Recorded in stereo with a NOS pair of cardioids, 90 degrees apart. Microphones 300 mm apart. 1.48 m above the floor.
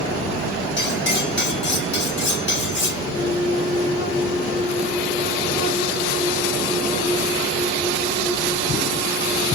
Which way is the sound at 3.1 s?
55° left.